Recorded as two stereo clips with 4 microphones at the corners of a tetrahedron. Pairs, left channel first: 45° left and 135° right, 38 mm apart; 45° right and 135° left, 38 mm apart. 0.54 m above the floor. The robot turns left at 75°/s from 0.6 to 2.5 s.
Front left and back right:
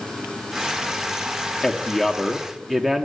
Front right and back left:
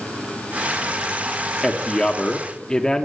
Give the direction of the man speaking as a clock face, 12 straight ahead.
11 o'clock.